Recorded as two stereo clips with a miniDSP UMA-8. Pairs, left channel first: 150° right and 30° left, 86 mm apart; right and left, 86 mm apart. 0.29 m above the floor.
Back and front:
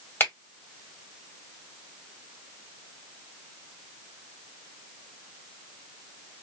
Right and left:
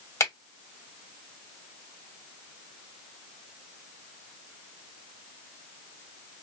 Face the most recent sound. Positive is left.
turn(degrees=-100)